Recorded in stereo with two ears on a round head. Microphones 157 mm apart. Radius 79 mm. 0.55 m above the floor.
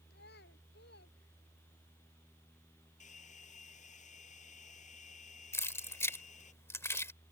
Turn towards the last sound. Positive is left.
turn(degrees=15)  # may be behind; listen again after turning